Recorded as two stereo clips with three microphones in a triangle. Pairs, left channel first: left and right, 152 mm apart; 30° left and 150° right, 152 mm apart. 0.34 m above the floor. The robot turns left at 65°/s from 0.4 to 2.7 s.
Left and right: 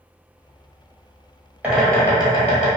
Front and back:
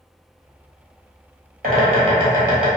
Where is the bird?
165° right, 1.1 m; by 2.7 s 125° left, 1.1 m.